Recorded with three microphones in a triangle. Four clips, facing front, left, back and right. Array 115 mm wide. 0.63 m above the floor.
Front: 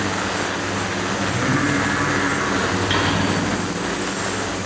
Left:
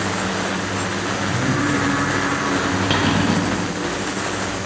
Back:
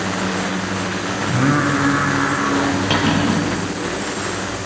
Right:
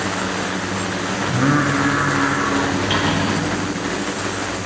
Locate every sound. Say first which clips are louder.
1.2 s singing: right 5 dB, back 5 dB; 140° right, 3.5 m
2.9 s cutlery clinking: left 1 dB, back 3 dB; 145° left, 8.5 m